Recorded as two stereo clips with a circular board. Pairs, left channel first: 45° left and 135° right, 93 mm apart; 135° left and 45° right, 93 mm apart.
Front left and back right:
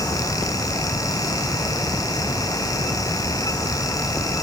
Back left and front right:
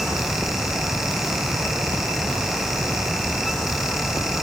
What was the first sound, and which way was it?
Only background noise.